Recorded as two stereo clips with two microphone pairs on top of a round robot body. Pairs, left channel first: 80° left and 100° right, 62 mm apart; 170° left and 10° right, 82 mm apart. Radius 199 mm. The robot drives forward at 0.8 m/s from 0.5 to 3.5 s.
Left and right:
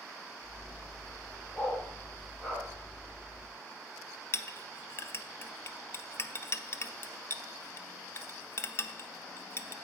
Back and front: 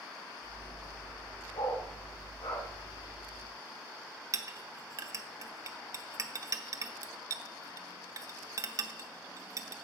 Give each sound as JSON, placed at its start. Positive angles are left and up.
{"t": 1.5, "sound": "a dog barking", "azimuth_deg": 150, "distance_m": 1.9}
{"t": 4.3, "sound": "a clink", "azimuth_deg": 35, "distance_m": 0.7}